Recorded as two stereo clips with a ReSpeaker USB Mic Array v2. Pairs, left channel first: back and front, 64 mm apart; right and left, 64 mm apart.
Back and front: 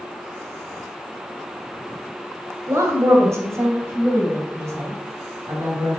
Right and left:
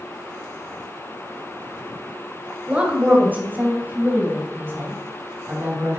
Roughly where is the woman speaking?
Ahead left.